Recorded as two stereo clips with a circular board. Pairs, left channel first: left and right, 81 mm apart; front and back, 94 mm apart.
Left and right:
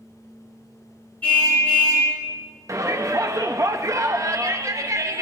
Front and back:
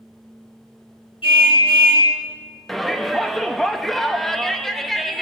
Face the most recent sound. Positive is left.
turn(degrees=-85)